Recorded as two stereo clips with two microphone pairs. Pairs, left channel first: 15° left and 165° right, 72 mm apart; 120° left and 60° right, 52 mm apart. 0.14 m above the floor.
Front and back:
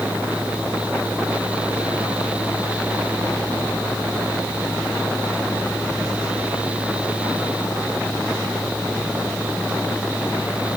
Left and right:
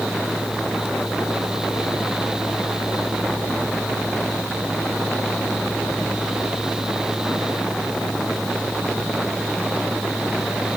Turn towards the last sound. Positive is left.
No sound to turn to.